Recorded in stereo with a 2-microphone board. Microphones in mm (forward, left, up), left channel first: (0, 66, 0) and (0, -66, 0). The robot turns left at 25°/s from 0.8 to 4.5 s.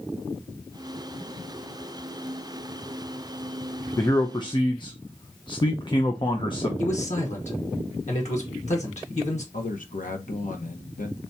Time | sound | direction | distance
4.0 | a man speaking | 25° left (ahead or behind) | 0.7 m
6.8 | a man speaking | 60° left (ahead or behind) | 1.3 m
9.5 | a man speaking | 80° left | 1.2 m